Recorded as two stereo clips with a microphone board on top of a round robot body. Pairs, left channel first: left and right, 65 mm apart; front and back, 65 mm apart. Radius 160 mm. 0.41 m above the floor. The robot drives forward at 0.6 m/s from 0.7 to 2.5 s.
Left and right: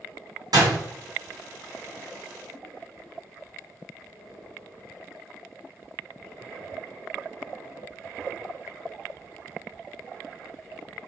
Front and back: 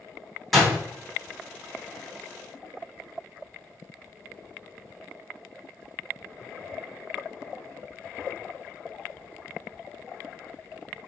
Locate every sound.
0.5 s a door slam: 90° right, 4 m